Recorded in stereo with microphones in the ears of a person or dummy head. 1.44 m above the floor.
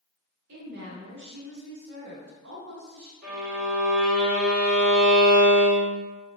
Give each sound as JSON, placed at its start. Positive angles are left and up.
{"t": 0.5, "sound": "a woman speaking", "side_deg": -65, "distance_m": 1.0}
{"t": 3.2, "sound": "a violin", "side_deg": -55, "distance_m": 1.3}